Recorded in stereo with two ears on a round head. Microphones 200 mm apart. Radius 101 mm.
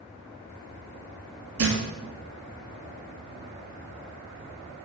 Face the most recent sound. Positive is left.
turn(degrees=-70)  # may be behind; listen again after turning